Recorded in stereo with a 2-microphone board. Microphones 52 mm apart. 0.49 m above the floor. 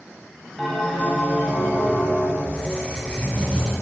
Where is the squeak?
20° left (ahead or behind), 1.1 m.